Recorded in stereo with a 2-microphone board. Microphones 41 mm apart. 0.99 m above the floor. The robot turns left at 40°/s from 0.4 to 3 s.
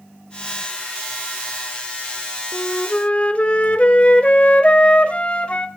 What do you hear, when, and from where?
2.5 s a flute: 25° left (ahead or behind), 0.8 m; by 5.7 s 30° left (ahead or behind), 0.8 m